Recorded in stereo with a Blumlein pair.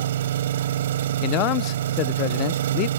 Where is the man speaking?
40° left.